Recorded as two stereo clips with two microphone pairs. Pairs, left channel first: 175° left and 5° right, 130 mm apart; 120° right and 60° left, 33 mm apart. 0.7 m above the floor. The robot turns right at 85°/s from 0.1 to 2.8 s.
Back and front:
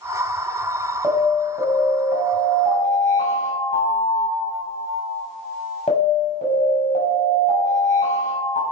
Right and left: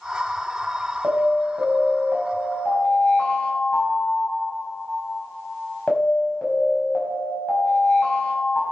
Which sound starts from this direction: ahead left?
An alarm, at 1.0 s.